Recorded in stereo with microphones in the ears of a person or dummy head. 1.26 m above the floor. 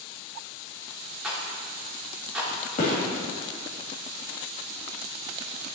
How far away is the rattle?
About 1.3 m.